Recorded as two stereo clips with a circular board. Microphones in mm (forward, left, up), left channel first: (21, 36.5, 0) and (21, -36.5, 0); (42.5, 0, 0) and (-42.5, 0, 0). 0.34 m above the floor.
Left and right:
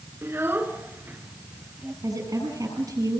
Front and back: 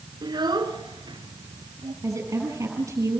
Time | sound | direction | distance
0.2 | a child speaking | 145° right | 2.5 m
2.0 | a woman speaking | 125° right | 8 m